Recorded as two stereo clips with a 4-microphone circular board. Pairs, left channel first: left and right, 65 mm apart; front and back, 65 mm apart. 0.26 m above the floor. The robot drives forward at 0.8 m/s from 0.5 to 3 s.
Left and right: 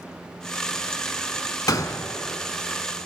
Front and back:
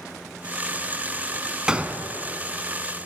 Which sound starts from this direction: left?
A gunshot, at 1.7 s.